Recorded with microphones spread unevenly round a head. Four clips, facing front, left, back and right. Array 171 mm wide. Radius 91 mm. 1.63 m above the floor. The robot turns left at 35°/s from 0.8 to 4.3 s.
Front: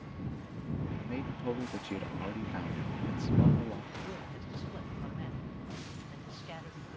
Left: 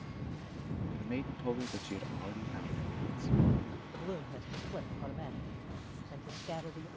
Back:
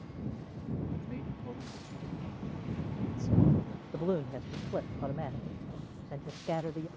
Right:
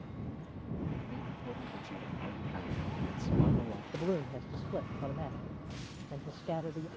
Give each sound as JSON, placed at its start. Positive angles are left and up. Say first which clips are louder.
{"t": 1.0, "sound": "a man speaking", "louder": "left 5 dB, front 4 dB", "azimuth_deg": 60}
{"t": 3.9, "sound": "a man speaking", "louder": "right 7 dB, back 10 dB", "azimuth_deg": -145}